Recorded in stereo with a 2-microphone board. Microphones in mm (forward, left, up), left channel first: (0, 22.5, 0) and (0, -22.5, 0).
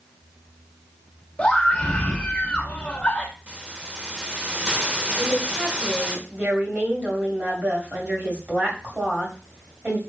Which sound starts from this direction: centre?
A hiss, at 3.5 s.